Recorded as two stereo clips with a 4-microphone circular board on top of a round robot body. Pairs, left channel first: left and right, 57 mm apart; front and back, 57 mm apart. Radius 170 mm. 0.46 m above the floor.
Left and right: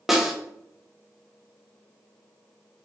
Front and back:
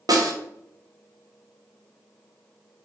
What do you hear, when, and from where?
0.1 s a snare drum: 175° right, 0.9 m